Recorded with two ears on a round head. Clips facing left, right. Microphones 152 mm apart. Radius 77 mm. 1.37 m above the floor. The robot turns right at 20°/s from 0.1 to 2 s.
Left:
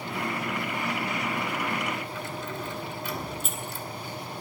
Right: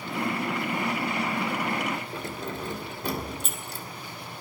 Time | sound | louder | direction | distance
2.1 | keys jangling | right 1 dB | 35° right (ahead or behind) | 2 m